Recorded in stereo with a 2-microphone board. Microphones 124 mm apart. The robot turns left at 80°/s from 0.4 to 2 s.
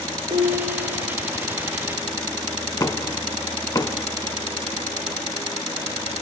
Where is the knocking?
25° left (ahead or behind), 1.0 m.